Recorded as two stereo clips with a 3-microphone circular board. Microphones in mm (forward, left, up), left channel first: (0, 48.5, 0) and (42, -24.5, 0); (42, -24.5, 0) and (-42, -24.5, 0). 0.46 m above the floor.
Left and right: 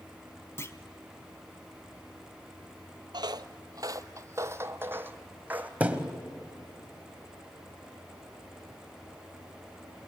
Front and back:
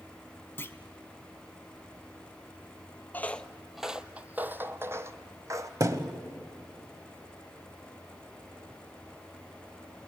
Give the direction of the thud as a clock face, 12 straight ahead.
4 o'clock.